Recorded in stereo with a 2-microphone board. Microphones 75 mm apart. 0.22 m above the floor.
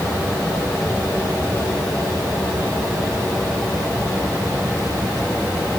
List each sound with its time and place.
Only background noise.